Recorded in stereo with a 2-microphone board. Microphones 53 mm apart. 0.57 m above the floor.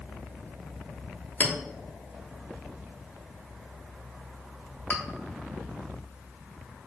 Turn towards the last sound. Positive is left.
turn(degrees=35)  # may be behind; listen again after turning